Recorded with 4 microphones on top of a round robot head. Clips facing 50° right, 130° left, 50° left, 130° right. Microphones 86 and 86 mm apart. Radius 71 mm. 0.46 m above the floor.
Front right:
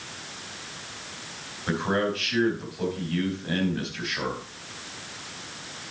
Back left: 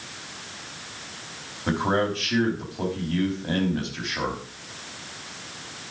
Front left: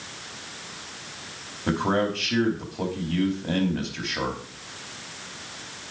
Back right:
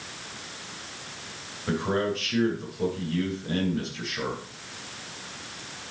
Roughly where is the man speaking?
Left.